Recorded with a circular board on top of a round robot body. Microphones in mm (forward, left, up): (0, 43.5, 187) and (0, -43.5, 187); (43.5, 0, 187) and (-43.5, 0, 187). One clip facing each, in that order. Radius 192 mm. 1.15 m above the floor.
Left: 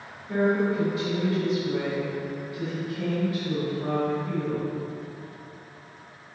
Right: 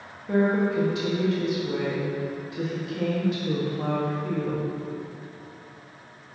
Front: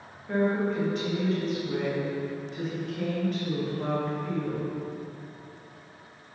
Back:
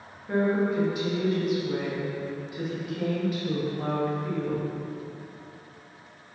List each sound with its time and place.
0.3 s a woman speaking: 100° right, 2.0 m